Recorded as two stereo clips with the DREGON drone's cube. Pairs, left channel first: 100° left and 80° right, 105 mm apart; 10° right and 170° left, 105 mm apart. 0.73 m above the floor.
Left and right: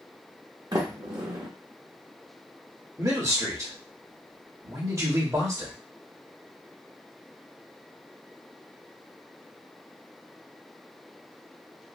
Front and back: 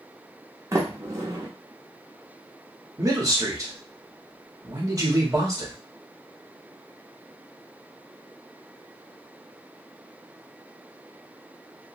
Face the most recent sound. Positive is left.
turn(degrees=-135)